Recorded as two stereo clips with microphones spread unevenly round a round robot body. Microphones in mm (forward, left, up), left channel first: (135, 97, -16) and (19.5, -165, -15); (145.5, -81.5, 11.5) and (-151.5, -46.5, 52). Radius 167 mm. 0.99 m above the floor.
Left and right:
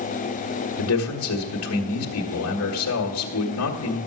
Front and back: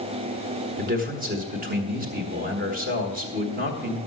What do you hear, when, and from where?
0.8 s a man speaking: 110° left, 1.3 m